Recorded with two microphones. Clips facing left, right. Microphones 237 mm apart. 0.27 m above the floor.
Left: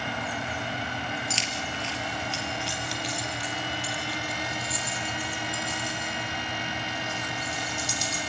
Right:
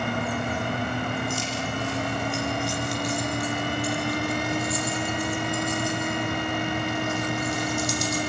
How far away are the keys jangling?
About 4 m.